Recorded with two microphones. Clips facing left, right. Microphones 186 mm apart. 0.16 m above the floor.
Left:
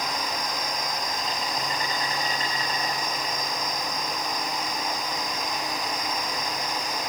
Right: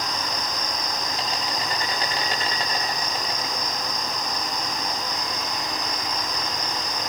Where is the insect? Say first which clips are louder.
Even; 80° right, 9 m.